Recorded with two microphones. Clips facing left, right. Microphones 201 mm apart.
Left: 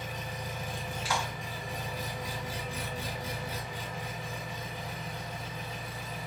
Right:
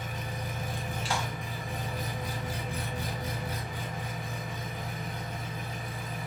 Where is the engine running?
55° right (ahead or behind), 1.3 m.